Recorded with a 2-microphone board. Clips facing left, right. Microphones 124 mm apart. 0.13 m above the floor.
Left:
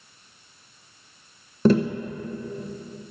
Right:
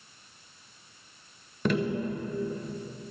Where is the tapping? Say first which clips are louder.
Left 8 dB; 35° left (ahead or behind), 0.7 m.